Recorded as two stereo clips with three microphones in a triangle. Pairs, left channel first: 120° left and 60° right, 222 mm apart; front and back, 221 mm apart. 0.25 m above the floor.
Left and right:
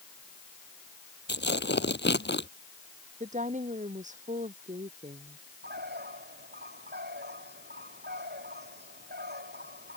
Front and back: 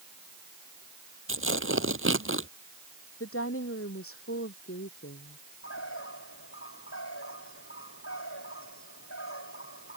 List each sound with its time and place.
1.3 s tearing paper: 160° left
3.2 s a woman speaking: 5° right
5.6 s a bird: 20° right